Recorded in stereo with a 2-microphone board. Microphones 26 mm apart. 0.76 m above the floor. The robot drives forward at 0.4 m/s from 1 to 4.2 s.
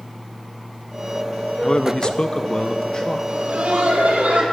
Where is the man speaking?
35° left (ahead or behind), 0.5 m; by 3.2 s 30° left (ahead or behind), 0.6 m.